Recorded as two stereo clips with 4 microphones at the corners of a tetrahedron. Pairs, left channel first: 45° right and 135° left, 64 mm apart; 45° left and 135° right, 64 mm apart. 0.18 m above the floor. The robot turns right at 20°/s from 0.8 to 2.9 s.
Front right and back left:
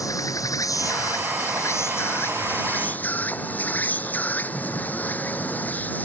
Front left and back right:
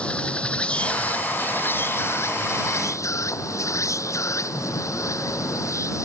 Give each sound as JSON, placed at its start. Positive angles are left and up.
{"t": 0.0, "sound": "an insect", "azimuth_deg": -25}